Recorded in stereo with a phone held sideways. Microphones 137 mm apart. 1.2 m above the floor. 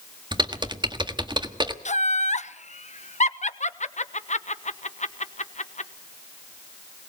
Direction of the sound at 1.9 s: 60° left (ahead or behind).